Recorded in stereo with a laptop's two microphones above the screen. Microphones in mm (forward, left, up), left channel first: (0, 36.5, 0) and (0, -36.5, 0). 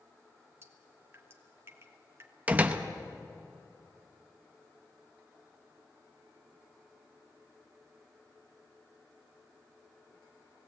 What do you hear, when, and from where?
0.6 s dripping: 35° right (ahead or behind), 2 m
2.5 s a door slam: 20° right (ahead or behind), 0.9 m